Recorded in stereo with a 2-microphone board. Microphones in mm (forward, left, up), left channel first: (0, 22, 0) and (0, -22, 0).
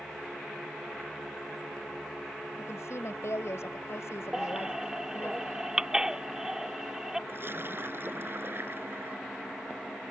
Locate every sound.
2.6 s a woman speaking: 85° left; by 5.3 s 65° left (ahead or behind)
4.3 s a baby crying: 15° right (ahead or behind)
7.3 s a splash: 55° right (ahead or behind)